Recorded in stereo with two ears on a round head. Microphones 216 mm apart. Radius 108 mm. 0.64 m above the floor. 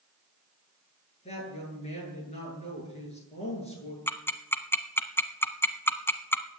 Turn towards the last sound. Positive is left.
turn(degrees=10)  # may be behind; listen again after turning